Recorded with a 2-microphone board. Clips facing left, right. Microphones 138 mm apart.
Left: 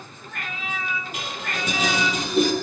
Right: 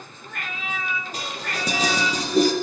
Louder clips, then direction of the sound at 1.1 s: Even; 35° right (ahead or behind).